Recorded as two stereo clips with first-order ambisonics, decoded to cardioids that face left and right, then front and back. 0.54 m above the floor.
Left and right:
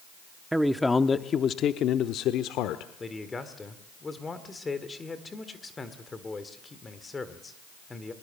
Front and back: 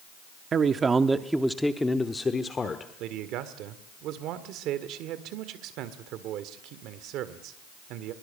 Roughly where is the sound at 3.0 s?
Behind.